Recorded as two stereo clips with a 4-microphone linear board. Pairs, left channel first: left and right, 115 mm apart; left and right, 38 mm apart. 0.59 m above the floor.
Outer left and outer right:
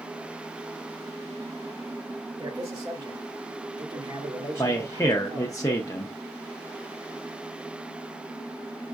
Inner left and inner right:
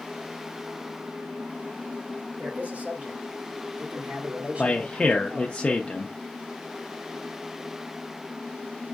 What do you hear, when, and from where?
2.4 s a man speaking: 50° right (ahead or behind), 2 m; by 5.6 s 35° right (ahead or behind), 1.6 m
4.6 s a man speaking: 25° left (ahead or behind), 0.6 m